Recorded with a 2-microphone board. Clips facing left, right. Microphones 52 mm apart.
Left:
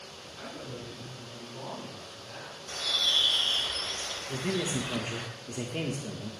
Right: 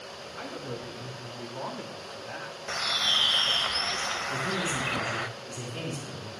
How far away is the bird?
About 0.6 m.